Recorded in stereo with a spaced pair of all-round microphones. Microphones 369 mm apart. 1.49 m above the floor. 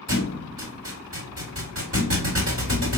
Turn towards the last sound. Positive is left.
turn(degrees=-45)  # may be behind; listen again after turning